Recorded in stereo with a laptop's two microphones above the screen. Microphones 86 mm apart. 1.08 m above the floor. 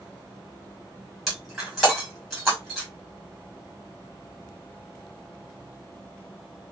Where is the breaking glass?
Centre (ahead or behind), 2 m.